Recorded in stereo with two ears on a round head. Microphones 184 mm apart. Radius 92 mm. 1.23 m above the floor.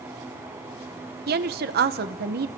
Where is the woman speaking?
55° right (ahead or behind), 1.0 m.